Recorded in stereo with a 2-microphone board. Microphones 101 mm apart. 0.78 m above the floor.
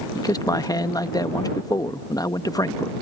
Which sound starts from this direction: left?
A man speaking, at 0.1 s.